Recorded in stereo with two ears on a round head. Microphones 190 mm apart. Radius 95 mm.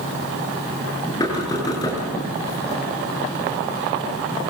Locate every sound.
1.2 s knocking: 20° left (ahead or behind), 8.5 m